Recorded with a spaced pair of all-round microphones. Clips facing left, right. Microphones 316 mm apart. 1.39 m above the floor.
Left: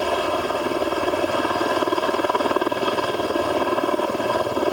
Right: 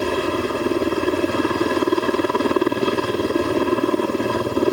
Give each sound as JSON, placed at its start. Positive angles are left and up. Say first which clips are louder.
{"t": 0.0, "sound": "a helicopter", "louder": "right 3 dB", "side_deg": -25}